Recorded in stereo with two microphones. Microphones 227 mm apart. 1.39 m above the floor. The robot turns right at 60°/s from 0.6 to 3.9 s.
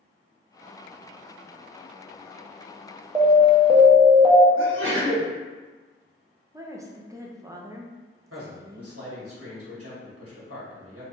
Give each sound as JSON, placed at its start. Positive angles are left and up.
{"t": 3.1, "sound": "an alarm", "side_deg": -20, "distance_m": 0.7}
{"t": 4.6, "sound": "a sneeze", "side_deg": -60, "distance_m": 1.2}
{"t": 6.5, "sound": "a woman speaking", "side_deg": -15, "distance_m": 0.6}
{"t": 8.3, "sound": "a man speaking", "side_deg": -80, "distance_m": 1.5}